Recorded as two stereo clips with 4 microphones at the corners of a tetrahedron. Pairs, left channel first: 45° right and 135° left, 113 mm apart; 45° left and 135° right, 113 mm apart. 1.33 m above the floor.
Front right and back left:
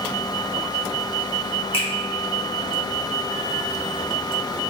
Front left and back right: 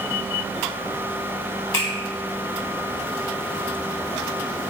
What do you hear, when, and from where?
1.7 s a finger snap: 15° right, 0.8 m